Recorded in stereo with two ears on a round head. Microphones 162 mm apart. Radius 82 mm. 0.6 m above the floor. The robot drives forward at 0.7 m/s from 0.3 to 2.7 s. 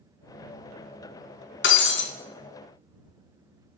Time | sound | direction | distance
1.6 | breaking glass | 70° left (ahead or behind) | 1.1 m